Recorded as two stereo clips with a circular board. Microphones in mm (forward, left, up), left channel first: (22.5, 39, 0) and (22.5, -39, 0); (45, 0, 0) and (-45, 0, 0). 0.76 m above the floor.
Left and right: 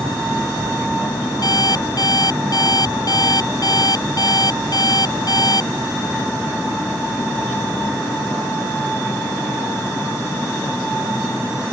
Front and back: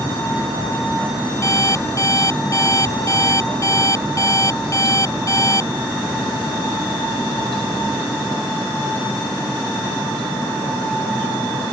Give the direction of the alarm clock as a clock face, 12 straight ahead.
10 o'clock.